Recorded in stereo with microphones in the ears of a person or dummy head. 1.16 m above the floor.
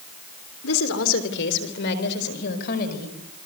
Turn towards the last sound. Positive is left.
turn(degrees=50)  # may be behind; listen again after turning